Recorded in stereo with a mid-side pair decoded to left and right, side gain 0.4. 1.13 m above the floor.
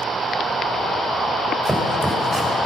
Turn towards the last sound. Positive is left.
turn(degrees=-20)